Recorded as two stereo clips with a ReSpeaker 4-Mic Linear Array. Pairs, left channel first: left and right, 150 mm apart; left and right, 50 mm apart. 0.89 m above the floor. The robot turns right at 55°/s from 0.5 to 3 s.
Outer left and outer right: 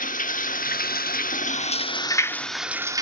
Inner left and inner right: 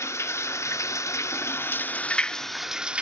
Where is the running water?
65° left, 0.9 m; by 3.0 s 155° right, 0.9 m.